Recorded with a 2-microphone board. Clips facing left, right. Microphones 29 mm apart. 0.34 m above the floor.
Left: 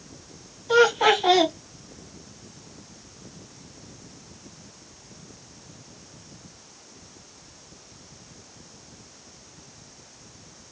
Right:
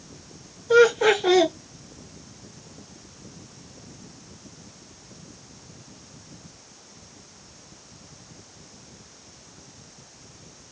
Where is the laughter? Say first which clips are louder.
Right 1 dB; 50° left (ahead or behind), 2 m.